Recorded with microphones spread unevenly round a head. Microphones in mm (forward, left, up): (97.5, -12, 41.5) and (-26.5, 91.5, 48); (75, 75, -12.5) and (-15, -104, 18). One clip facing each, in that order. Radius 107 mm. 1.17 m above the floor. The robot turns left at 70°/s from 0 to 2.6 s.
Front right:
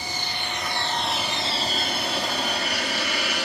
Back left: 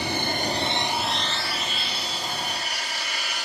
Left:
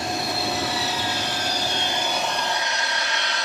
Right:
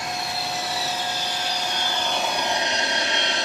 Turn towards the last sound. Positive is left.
turn(degrees=-50)